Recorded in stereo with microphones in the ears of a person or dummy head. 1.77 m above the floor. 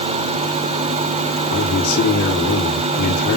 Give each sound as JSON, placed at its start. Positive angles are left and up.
{"t": 1.5, "sound": "a man speaking", "side_deg": 50, "distance_m": 3.5}